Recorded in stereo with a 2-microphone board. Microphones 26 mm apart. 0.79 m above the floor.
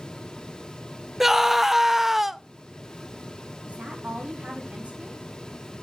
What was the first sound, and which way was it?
A scream, 5° right (ahead or behind).